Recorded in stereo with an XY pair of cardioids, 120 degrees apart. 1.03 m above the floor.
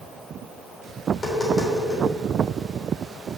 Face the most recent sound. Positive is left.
turn(degrees=20)